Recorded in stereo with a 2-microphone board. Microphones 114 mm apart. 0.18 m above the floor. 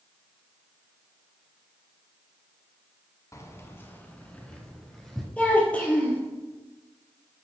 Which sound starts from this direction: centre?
A child speaking, at 5.4 s.